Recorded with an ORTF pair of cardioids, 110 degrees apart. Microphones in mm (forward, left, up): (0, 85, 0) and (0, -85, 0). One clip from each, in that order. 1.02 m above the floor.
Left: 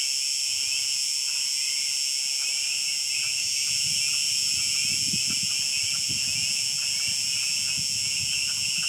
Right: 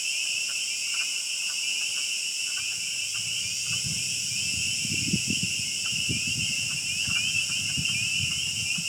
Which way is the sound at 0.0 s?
40° left.